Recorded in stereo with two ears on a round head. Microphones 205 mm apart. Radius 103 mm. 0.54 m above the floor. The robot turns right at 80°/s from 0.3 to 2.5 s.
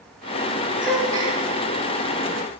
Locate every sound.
0.8 s a gasp: 170° left, 6 m; by 1.4 s 145° right, 6 m